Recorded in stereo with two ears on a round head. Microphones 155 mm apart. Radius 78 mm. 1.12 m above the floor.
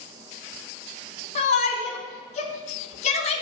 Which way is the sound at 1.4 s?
40° left (ahead or behind).